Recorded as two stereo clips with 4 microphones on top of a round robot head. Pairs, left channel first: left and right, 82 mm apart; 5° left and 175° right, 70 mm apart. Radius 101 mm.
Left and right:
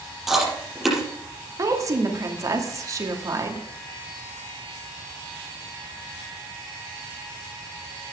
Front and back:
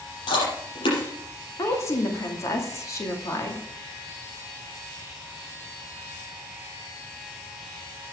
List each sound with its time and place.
0.3 s chewing: 5° right, 5.5 m
1.6 s a woman speaking: 45° right, 2.5 m